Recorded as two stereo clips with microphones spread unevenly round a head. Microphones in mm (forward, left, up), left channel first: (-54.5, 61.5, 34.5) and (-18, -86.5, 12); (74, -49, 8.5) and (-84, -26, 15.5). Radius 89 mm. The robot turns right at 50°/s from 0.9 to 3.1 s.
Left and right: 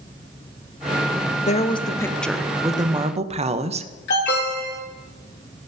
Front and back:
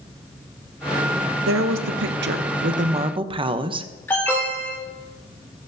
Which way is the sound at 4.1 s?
70° left.